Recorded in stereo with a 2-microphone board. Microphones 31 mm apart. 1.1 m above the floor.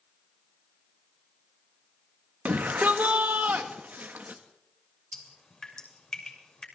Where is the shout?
75° right (ahead or behind), 1.5 m.